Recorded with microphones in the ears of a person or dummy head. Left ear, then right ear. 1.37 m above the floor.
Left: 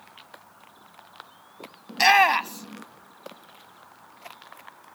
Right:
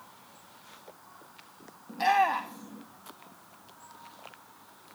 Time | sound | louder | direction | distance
1.9 | a shout | left 7 dB | 60° left (ahead or behind) | 0.7 m